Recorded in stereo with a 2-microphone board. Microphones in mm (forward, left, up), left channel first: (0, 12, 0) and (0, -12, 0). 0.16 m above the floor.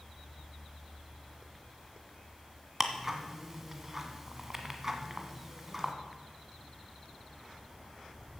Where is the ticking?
20° right (ahead or behind), 1.6 m.